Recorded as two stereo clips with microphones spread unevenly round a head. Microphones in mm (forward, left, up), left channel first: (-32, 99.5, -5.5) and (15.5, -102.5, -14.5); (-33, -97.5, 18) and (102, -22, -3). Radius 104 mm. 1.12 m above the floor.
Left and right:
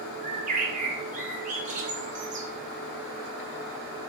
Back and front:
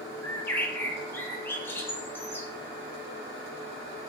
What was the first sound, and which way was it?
A bird, 70° right.